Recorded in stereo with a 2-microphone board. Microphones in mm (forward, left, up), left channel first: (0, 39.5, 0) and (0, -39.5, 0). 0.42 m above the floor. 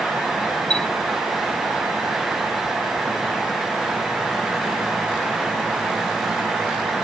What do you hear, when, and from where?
0.7 s a chime: 10° left (ahead or behind)